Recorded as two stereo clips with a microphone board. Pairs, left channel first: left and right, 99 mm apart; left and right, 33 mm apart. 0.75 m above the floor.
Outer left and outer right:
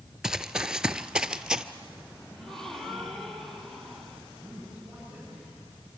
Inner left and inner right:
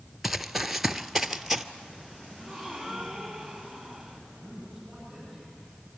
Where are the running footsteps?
5° right (ahead or behind), 0.7 m.